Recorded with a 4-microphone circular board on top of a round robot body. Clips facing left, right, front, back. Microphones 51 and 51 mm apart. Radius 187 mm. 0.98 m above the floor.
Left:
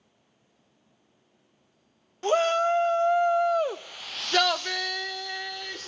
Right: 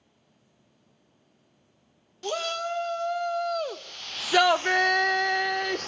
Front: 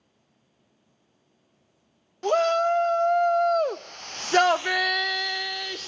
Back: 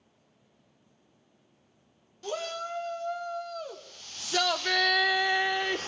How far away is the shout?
About 1.4 m.